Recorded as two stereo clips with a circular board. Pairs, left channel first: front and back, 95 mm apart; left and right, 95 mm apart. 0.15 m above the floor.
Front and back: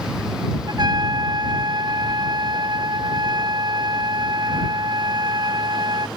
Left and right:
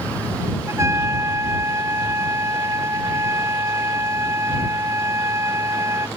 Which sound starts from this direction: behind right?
A trumpet, at 0.7 s.